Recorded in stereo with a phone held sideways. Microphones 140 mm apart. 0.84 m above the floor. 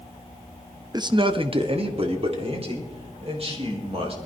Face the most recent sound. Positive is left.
turn(degrees=-45)  # may be behind; listen again after turning